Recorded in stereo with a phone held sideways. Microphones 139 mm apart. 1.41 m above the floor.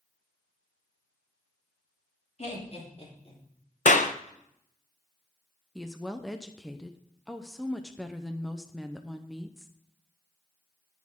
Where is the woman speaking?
Centre (ahead or behind), 0.6 m.